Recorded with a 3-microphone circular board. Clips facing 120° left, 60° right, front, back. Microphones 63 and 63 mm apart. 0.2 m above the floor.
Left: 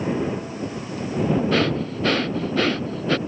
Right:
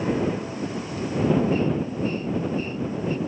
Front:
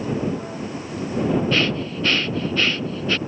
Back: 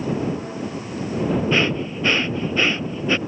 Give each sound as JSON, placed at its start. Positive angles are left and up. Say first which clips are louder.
{"t": 1.5, "sound": "breathing", "louder": "left 2 dB, back 1 dB", "azimuth_deg": 105}